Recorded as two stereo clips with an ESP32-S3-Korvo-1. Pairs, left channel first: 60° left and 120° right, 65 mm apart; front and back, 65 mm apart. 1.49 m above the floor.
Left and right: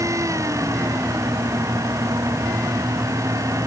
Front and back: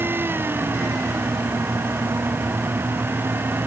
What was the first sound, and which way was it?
Only background noise.